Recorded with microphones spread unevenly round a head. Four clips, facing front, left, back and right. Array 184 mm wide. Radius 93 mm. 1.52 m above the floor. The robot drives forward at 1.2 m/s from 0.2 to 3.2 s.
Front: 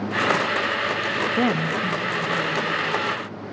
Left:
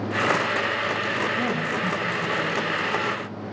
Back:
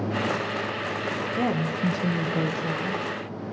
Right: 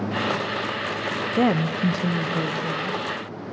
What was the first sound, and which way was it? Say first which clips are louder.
A woman speaking: right 5 dB, front 3 dB; 40° right.